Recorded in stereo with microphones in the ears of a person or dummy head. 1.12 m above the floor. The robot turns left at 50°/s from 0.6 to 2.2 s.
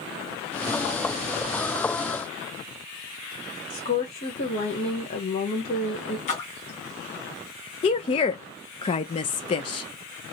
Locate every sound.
3.7 s a woman speaking: 35° left (ahead or behind), 1.1 m
6.3 s a splash: 35° left (ahead or behind), 1.5 m
7.8 s a woman speaking: 25° left (ahead or behind), 0.6 m